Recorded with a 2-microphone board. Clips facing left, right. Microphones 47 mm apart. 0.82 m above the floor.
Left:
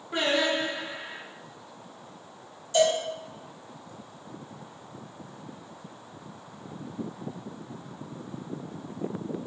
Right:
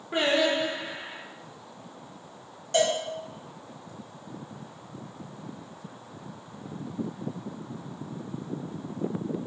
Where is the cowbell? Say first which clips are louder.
Left 2 dB; 55° right (ahead or behind), 1.0 m.